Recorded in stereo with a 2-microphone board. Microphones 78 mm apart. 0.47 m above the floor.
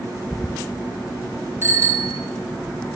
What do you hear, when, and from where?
1.6 s a bicycle bell: 30° right (ahead or behind), 6 m